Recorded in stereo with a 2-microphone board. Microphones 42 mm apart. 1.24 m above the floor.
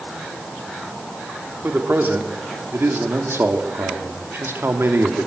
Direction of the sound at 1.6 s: 55° right (ahead or behind).